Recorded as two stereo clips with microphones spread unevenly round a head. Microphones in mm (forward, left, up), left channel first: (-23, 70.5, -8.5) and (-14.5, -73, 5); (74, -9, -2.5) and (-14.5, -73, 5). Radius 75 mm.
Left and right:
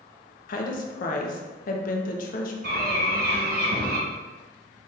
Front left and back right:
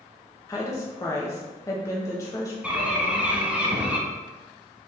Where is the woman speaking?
100° left, 0.7 m.